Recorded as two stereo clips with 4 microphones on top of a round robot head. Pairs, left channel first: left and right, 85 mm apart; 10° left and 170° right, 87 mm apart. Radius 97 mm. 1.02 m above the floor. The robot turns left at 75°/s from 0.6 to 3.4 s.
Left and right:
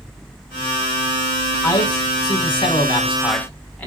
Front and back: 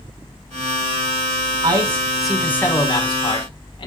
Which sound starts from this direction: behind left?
A man speaking, at 1.6 s.